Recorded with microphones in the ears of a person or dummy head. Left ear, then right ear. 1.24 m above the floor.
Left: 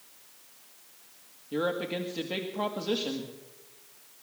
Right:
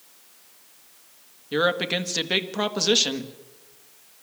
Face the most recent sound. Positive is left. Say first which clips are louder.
# right 8 dB
turn(degrees=-60)  # may be behind; listen again after turning